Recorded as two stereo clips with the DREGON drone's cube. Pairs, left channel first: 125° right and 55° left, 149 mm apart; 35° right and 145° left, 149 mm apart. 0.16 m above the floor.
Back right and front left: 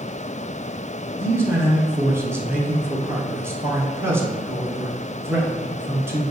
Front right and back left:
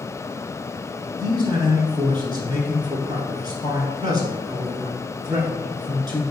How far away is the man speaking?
About 1.1 m.